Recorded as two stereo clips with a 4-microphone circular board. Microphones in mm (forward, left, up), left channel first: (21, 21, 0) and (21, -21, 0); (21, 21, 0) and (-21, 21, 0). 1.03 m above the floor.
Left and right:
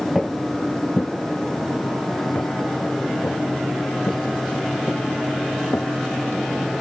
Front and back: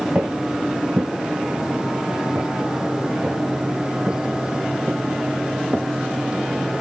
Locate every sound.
0.1 s footsteps: 170° right; by 6.4 s 120° left